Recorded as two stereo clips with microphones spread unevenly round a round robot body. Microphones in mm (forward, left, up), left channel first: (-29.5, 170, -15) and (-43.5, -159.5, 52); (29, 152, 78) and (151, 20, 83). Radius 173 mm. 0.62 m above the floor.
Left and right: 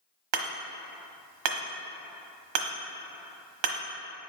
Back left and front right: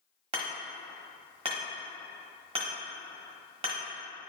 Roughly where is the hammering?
Right.